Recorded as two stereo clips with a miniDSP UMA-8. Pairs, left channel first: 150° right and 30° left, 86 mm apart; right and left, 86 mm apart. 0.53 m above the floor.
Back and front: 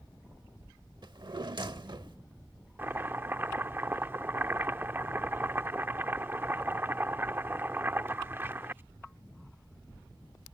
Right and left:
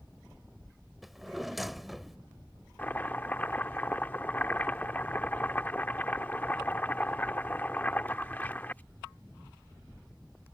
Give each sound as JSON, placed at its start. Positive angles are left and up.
{"t": 1.0, "sound": "a drawer", "azimuth_deg": 0}
{"t": 2.8, "sound": "chopping", "azimuth_deg": -25}